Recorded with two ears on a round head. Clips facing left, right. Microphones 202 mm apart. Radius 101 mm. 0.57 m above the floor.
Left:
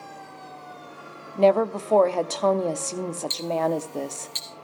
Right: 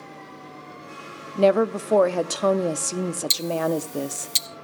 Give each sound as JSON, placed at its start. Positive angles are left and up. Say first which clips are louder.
{"t": 1.4, "sound": "a woman speaking", "louder": "right 1 dB", "side_deg": -15, "distance_m": 0.6}
{"t": 3.3, "sound": "ticking", "louder": "even", "side_deg": -60, "distance_m": 1.2}